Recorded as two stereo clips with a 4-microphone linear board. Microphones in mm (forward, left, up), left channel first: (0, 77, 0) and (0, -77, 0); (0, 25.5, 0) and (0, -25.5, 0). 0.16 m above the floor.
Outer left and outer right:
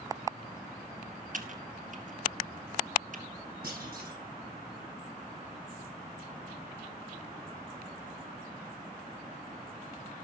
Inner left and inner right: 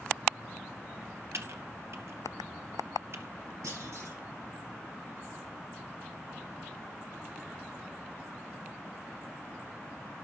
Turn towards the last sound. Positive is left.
turn(degrees=-75)  # may be behind; listen again after turning